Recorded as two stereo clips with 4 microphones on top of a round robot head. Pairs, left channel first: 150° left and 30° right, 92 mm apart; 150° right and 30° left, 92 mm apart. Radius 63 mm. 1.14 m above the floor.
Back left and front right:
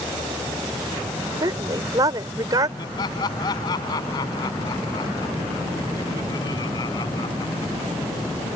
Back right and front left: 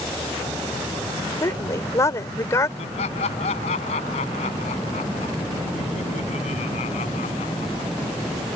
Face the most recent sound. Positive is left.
turn(degrees=-160)